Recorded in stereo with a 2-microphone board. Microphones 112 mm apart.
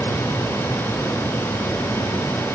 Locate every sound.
Only background noise.